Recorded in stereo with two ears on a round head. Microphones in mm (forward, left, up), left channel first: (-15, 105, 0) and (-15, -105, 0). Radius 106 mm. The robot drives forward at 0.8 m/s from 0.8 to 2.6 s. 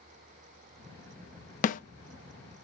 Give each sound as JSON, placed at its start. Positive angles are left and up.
{"t": 1.6, "sound": "a snare drum", "side_deg": 35, "distance_m": 0.7}